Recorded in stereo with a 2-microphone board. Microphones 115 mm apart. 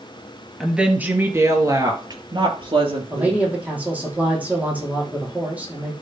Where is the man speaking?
15° right (ahead or behind), 4.5 m.